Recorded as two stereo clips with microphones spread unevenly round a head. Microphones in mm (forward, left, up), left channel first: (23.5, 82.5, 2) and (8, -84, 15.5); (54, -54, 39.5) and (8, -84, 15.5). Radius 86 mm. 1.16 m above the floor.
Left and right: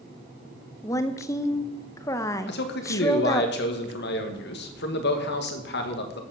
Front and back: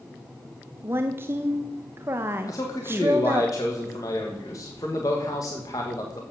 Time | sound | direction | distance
0.8 | a woman speaking | 155° left | 0.7 m
2.5 | a man speaking | 90° left | 1.6 m